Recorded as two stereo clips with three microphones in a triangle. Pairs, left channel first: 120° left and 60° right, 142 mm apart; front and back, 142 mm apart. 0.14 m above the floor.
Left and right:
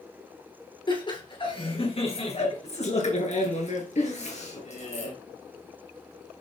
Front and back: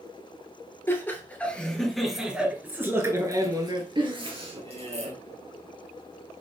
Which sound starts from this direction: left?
Laughter, at 0.9 s.